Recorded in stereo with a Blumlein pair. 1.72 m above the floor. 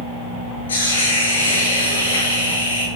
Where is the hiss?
70° left, 6.5 m.